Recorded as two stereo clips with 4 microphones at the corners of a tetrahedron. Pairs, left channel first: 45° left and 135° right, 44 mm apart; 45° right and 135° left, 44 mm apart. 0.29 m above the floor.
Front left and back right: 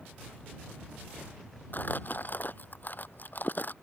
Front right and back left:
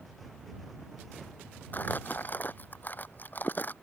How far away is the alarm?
I don't hear an alarm.